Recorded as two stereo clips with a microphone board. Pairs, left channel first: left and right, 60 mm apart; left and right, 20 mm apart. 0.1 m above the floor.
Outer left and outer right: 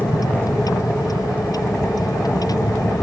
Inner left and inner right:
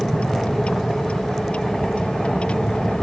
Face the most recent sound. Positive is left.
turn(degrees=85)